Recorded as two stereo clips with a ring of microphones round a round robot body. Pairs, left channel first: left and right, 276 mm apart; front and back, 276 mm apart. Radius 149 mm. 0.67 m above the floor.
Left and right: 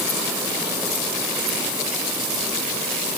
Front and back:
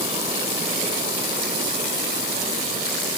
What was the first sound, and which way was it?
Only background noise.